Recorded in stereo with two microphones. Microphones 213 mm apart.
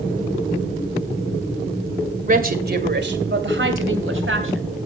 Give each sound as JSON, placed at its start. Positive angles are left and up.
{"t": 2.3, "sound": "a woman speaking", "side_deg": -40, "distance_m": 2.0}